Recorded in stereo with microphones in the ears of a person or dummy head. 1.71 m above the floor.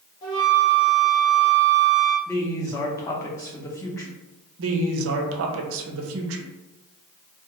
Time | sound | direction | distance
0.2 | a flute | 20° left (ahead or behind) | 0.9 m
2.3 | a woman speaking | 20° left (ahead or behind) | 0.5 m
4.6 | a woman speaking | 75° right (ahead or behind) | 0.6 m